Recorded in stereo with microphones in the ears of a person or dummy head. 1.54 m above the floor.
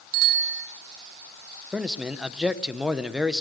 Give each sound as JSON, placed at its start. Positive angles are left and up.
{"t": 0.1, "sound": "a bicycle bell", "side_deg": -75, "distance_m": 3.0}
{"t": 1.7, "sound": "a man speaking", "side_deg": -5, "distance_m": 1.1}